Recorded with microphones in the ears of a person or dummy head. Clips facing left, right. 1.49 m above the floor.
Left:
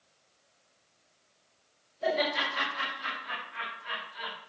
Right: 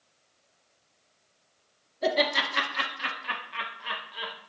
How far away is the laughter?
About 2.5 m.